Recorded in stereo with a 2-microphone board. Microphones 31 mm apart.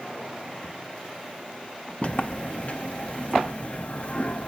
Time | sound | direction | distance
2.0 | a sliding door | 50° left (ahead or behind) | 0.6 m